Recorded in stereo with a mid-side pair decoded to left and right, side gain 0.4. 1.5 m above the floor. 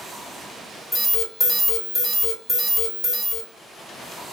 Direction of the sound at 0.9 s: 35° left.